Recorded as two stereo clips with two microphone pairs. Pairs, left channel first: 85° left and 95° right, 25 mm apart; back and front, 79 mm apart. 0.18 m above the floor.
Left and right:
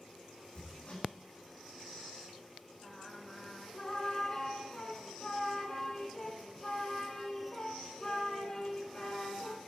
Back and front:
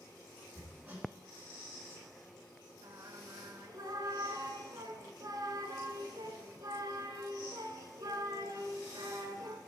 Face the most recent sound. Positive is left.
turn(degrees=15)